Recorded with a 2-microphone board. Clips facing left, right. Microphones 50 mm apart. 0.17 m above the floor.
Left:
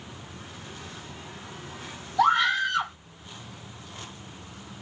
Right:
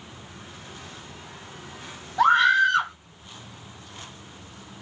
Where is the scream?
35° right (ahead or behind), 3 m.